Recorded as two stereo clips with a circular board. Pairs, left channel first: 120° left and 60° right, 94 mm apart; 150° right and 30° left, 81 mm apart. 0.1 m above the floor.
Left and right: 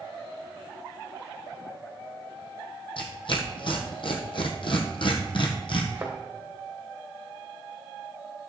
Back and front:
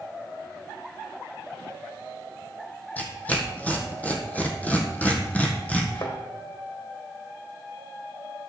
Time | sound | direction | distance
3.0 | tearing paper | 140° left | 1.6 m
6.0 | a thud | 130° right | 2.5 m